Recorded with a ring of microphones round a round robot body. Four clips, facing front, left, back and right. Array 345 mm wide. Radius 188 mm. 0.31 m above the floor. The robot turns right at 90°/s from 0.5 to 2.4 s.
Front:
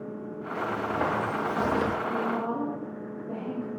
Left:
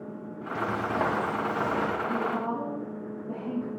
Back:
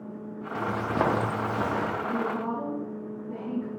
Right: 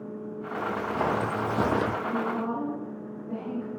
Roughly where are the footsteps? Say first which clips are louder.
Left 1 dB, back 2 dB; behind left.